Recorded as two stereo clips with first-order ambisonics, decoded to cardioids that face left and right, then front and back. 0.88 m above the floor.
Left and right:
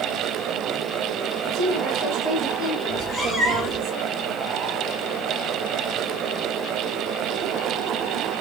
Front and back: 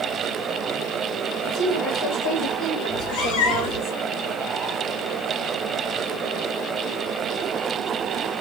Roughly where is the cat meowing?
Ahead.